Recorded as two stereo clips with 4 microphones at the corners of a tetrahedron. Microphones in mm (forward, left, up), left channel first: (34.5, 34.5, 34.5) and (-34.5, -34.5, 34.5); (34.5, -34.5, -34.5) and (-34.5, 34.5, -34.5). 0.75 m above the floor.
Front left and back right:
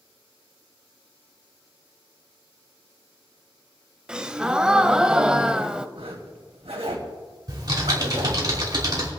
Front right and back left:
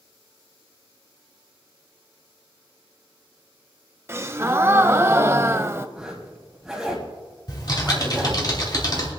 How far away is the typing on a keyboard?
About 3 m.